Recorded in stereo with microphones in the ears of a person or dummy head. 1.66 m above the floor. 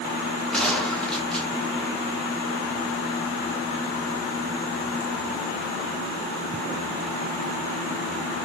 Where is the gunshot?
10° left (ahead or behind), 2.5 m.